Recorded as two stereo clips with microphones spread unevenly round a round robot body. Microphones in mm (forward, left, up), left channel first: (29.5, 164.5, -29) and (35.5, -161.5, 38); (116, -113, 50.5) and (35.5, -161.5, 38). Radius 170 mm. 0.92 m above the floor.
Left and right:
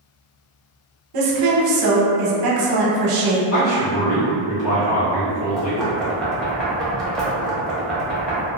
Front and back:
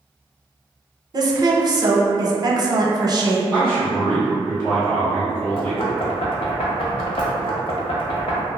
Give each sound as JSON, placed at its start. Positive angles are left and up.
{"t": 1.1, "sound": "a woman speaking", "azimuth_deg": -110, "distance_m": 0.7}
{"t": 3.5, "sound": "a man speaking", "azimuth_deg": 120, "distance_m": 1.5}
{"t": 5.6, "sound": "knocking", "azimuth_deg": 5, "distance_m": 0.6}